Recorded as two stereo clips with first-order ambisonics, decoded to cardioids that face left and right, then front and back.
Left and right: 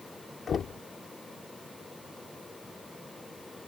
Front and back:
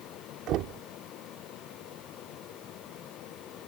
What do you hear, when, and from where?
0.5 s knocking: 150° left